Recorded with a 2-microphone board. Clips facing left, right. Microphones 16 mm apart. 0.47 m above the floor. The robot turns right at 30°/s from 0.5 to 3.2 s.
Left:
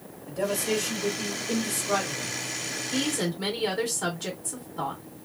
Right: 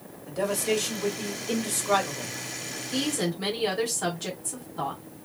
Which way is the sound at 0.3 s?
135° right.